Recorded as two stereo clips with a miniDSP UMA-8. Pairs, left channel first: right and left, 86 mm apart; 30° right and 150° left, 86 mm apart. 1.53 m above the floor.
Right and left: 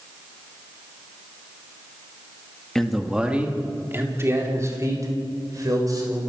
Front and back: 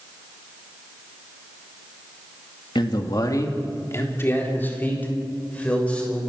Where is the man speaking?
5° right, 2 m; by 6.2 s 45° left, 6.5 m.